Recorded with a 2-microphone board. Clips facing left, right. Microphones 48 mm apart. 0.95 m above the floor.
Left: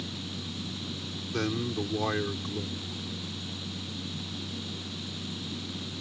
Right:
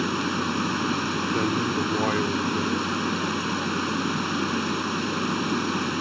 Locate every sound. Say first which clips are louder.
0.0 s running water: right 14 dB; 75° right (ahead or behind)
1.3 s a man speaking: right 4 dB; 15° right (ahead or behind)